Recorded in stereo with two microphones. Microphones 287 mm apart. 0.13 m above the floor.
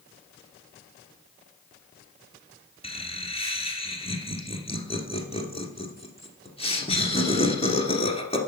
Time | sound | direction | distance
2.8 | laughter | 20° left (ahead or behind) | 1.8 m